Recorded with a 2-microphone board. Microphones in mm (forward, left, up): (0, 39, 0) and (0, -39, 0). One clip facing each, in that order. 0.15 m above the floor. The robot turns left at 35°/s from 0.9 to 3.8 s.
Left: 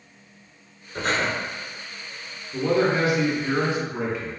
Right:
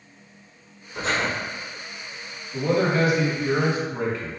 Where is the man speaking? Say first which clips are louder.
Even; 30° left (ahead or behind), 1.1 m; by 4.3 s 10° left (ahead or behind), 1.1 m.